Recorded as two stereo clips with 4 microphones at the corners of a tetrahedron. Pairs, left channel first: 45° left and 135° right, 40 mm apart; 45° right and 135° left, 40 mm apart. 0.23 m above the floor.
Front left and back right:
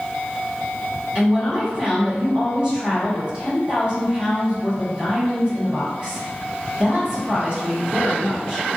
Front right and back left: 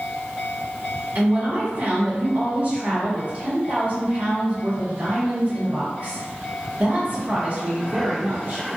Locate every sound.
1.1 s a woman speaking: 170° left, 1.5 m